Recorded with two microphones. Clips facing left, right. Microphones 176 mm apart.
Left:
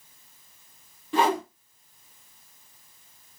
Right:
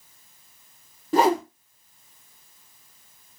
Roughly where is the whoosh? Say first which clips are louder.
Right 4 dB; right.